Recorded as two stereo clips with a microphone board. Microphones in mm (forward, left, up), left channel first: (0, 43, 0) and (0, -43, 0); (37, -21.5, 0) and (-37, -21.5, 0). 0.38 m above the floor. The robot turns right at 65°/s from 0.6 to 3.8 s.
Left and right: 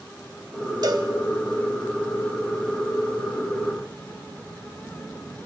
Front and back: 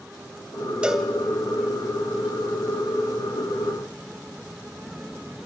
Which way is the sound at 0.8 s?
105° right.